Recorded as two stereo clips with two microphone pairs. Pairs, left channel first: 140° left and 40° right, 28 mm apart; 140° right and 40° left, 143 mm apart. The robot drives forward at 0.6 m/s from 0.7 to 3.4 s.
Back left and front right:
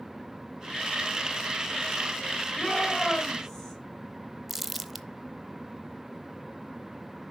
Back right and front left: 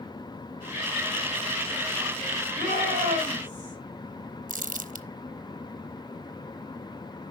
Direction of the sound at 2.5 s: 65° left.